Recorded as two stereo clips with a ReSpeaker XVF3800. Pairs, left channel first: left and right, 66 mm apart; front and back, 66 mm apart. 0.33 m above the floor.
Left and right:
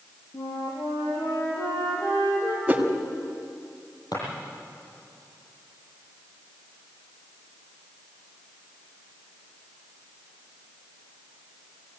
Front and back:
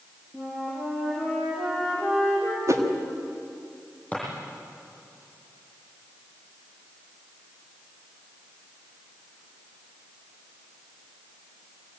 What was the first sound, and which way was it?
A flute, 95° left.